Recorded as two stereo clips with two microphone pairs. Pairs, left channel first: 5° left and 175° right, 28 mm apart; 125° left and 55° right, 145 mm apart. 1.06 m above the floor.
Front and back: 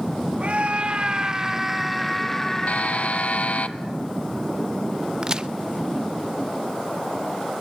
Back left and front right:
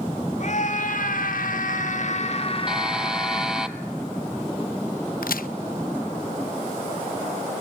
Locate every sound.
0.4 s a scream: 155° left, 2.5 m; by 3.7 s 60° left, 4 m
2.7 s a buzzer: 30° left, 0.8 m
5.2 s a crack: 125° left, 0.7 m